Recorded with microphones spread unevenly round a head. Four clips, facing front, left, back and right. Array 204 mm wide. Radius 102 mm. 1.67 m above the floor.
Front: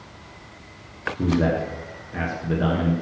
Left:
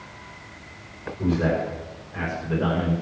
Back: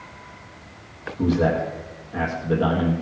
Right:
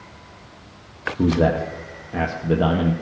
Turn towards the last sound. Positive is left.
turn(degrees=-90)